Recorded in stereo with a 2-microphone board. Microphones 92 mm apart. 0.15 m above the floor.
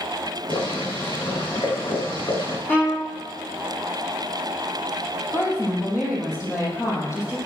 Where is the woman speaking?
35° left (ahead or behind), 6 m.